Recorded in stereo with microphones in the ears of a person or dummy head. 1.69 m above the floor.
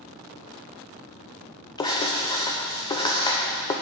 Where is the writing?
15° left (ahead or behind), 0.6 m.